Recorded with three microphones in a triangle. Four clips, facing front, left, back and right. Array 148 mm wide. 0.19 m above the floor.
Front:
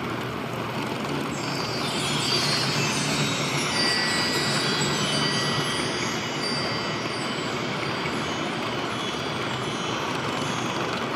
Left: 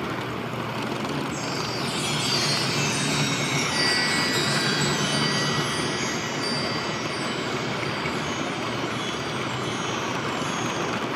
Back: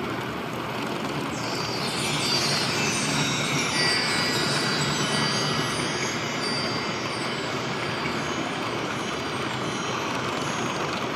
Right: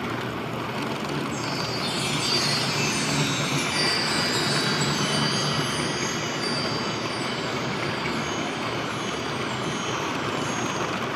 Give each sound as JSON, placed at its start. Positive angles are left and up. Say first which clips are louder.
{"t": 1.3, "sound": "a chime", "louder": "even, even", "azimuth_deg": 150, "distance_m": 4.5}